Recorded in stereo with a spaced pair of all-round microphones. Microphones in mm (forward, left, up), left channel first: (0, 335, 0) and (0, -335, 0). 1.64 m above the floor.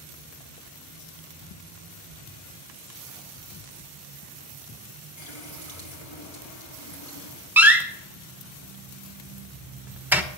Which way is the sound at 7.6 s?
5° right (ahead or behind).